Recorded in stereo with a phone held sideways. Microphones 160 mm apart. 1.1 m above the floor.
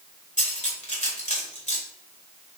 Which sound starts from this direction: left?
Cutlery clinking, at 0.4 s.